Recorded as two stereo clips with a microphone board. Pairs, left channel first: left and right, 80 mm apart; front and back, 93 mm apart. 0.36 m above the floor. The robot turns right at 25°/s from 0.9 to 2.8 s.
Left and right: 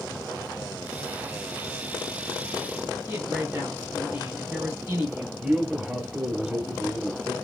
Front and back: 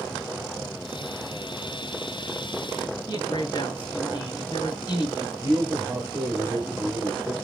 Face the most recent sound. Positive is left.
turn(degrees=-145)